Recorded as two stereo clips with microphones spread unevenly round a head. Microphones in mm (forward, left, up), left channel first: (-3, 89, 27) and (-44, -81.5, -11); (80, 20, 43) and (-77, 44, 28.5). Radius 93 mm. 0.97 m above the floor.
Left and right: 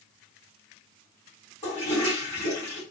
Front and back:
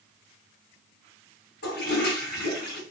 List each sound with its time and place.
1.6 s a toilet flushing: 10° left, 3 m